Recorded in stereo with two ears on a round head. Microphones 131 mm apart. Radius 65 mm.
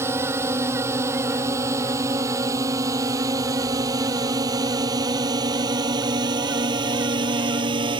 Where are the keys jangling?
No keys jangling in this recording.